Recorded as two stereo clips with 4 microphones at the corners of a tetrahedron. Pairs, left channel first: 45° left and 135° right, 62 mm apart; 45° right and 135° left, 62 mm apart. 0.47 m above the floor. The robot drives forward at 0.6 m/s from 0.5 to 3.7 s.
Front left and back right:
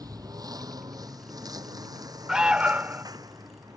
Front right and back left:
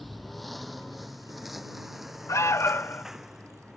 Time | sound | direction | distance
0.0 | a lawn mower | 135° right | ?
2.3 | an alarm | 55° right | ?